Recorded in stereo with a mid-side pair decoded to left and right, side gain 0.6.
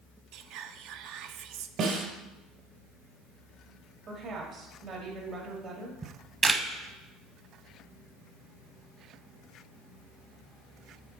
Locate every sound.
0.3 s whispering: 70° right, 0.5 m
1.8 s a snare drum: 55° right, 2.5 m
4.1 s a woman speaking: 60° right, 1.7 m
6.0 s a camera shutter: 25° right, 0.8 m